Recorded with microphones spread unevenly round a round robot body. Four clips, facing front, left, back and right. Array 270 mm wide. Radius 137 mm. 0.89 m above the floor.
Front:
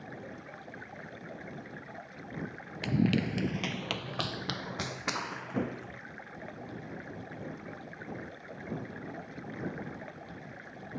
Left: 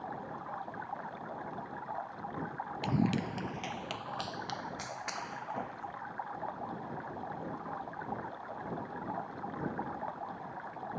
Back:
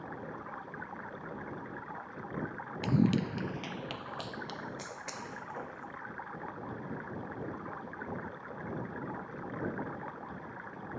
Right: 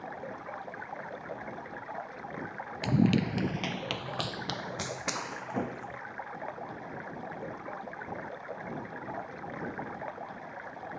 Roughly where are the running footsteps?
Behind right.